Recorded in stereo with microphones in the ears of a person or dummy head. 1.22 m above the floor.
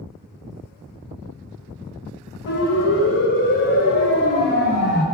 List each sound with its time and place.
2.5 s a siren: 60° left (ahead or behind), 9.5 m; by 5.0 s 50° left (ahead or behind), 8 m